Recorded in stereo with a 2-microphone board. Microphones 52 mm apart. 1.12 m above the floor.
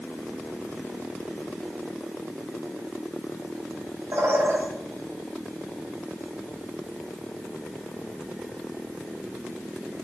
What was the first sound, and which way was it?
A bird, 70° right (ahead or behind).